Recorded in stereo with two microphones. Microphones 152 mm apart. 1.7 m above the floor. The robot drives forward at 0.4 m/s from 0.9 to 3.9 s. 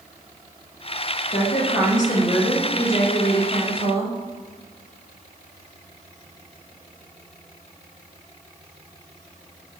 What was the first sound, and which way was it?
A woman speaking, 55° left (ahead or behind).